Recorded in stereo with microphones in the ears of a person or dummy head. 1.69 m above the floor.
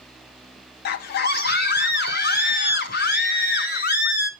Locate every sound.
0.8 s a scream: 55° left (ahead or behind), 0.8 m